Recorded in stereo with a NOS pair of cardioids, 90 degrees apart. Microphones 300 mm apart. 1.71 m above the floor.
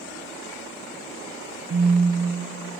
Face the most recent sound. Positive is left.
turn(degrees=-35)